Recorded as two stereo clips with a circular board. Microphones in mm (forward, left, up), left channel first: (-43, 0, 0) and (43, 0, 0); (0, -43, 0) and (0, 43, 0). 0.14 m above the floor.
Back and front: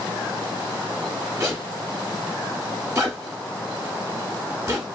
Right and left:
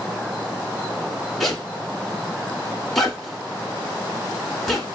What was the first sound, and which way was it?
A zipper, 5° right.